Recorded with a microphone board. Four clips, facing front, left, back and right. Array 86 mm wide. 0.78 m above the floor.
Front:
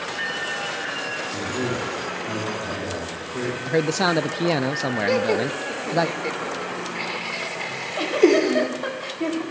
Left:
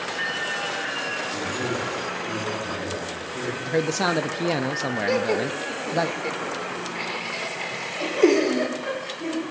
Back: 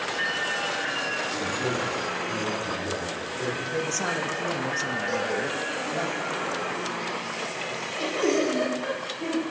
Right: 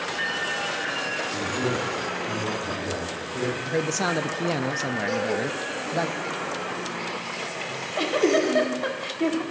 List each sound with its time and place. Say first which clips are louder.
1.3 s a man speaking: right 2 dB, front 3 dB; 10° right, 9.5 m
3.7 s a man speaking: left 5 dB, front 12 dB; 20° left, 0.5 m
5.1 s laughter: left 4 dB, front 8 dB; 30° left, 2 m
7.7 s a giggle: right 7 dB, front 6 dB; 50° right, 4 m